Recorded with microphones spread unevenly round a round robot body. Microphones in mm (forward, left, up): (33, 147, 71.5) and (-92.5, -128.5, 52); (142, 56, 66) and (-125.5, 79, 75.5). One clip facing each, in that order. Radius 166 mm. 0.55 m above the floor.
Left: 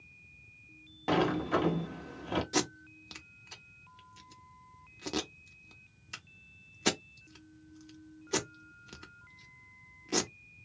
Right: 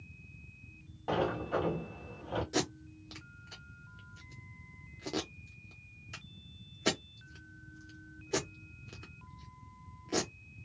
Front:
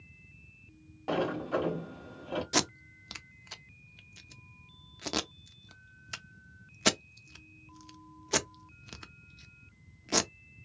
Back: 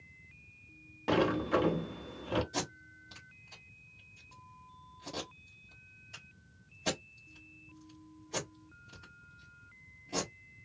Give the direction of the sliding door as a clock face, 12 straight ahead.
8 o'clock.